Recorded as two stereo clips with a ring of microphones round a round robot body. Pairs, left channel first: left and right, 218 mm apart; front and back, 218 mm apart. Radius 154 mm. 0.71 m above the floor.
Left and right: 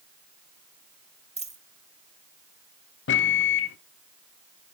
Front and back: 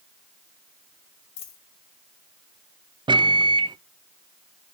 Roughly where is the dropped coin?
Ahead right.